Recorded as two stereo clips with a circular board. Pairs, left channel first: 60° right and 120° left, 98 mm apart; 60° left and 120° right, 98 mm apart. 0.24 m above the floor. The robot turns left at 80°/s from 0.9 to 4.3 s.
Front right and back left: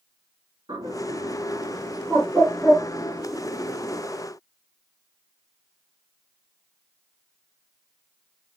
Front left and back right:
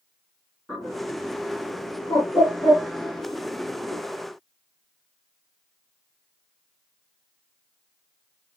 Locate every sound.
0.7 s a bird: 150° left, 2.5 m; by 4.0 s 100° right, 2.5 m